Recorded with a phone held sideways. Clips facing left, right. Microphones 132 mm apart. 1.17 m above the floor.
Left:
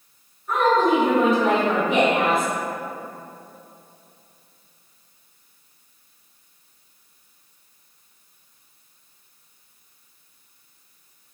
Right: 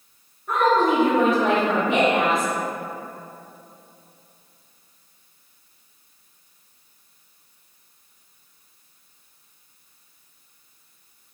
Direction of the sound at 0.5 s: 65° right (ahead or behind).